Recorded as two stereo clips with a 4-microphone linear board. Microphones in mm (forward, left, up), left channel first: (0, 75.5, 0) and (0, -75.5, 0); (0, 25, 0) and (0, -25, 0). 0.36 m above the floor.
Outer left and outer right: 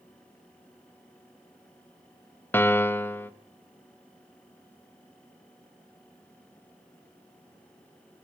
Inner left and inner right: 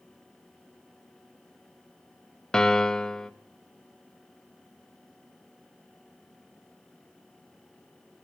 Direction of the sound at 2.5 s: 15° left (ahead or behind).